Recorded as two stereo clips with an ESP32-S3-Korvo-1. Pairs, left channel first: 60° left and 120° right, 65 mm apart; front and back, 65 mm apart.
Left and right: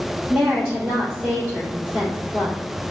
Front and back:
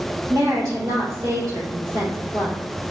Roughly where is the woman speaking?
Behind left.